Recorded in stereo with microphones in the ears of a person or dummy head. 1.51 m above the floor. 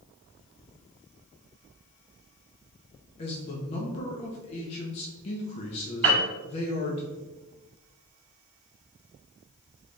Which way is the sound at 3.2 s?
40° left (ahead or behind).